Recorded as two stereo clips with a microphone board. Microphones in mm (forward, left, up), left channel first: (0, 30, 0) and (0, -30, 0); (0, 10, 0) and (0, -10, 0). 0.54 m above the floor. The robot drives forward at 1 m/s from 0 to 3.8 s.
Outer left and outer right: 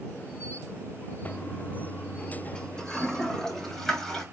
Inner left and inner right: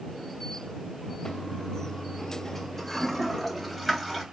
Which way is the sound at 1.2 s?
25° left (ahead or behind).